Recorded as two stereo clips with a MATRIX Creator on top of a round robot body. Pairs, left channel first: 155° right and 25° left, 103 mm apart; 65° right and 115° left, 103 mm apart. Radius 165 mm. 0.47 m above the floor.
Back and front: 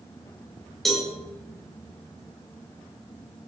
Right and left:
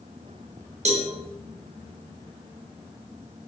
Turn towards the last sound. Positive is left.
turn(degrees=115)